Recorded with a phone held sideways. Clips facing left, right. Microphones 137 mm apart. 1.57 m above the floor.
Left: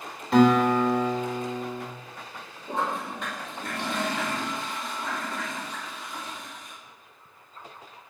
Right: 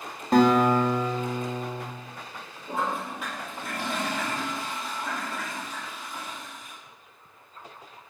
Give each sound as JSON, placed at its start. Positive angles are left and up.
{"t": 0.3, "sound": "a guitar", "side_deg": -45, "distance_m": 1.2}
{"t": 2.7, "sound": "a toilet flushing", "side_deg": -5, "distance_m": 1.9}